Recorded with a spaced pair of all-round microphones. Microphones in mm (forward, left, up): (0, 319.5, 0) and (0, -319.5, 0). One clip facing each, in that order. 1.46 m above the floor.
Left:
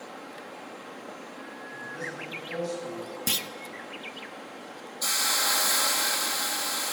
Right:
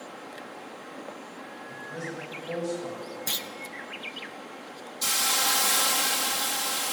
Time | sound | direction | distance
1.7 | a man speaking | 70° right (ahead or behind) | 8.5 m
3.3 | a clunk | 55° left (ahead or behind) | 0.7 m
5.0 | a hiss | 55° right (ahead or behind) | 1.4 m